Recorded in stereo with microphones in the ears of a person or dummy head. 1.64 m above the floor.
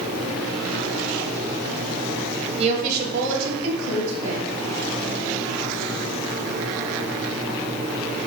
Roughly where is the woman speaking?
Right.